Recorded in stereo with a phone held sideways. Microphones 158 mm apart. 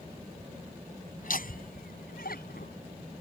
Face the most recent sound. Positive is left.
turn(degrees=75)  # may be behind; listen again after turning